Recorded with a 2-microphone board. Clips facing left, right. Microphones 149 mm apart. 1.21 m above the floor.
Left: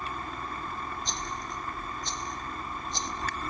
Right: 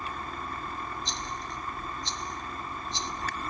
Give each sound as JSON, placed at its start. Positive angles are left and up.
{"t": 1.1, "sound": "a rattle", "side_deg": 45, "distance_m": 2.0}